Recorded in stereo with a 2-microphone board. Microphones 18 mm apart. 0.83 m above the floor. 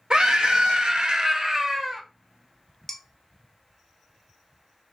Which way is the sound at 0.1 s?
55° right (ahead or behind).